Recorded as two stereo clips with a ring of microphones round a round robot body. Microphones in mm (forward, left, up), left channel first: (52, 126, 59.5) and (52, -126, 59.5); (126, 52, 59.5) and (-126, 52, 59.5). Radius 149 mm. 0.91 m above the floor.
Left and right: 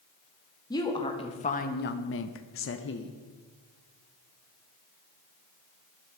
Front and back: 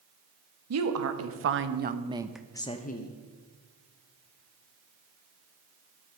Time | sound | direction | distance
0.7 | a woman speaking | 165° left | 1.6 m